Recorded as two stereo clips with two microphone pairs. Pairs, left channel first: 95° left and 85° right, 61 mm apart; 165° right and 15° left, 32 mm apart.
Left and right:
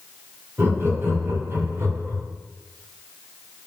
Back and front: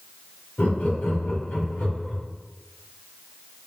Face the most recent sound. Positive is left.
turn(degrees=-125)